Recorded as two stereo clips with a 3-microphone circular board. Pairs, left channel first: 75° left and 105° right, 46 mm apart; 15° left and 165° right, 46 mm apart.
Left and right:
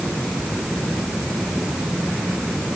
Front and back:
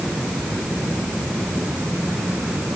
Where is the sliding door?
I don't hear a sliding door.